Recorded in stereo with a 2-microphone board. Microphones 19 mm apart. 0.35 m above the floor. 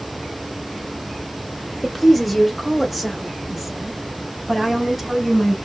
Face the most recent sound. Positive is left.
turn(degrees=-5)  # may be behind; listen again after turning